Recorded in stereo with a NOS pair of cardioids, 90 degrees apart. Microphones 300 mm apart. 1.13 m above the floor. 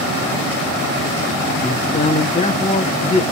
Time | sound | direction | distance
1.6 | a man speaking | 20° left | 2.5 m